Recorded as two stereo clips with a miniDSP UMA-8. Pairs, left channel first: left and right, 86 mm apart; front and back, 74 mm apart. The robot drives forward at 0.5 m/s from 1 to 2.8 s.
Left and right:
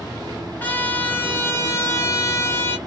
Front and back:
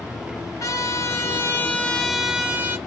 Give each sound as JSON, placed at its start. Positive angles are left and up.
{"t": 0.6, "sound": "a trumpet", "azimuth_deg": 30, "distance_m": 0.8}